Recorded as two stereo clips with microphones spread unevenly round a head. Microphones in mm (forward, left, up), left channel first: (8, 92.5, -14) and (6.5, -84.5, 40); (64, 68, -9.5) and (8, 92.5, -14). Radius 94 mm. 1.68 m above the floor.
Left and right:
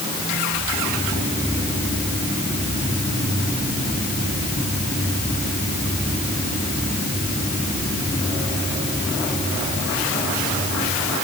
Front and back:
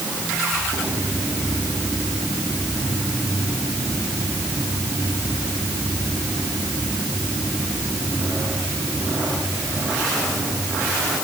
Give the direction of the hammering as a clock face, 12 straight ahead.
No hammering in this recording.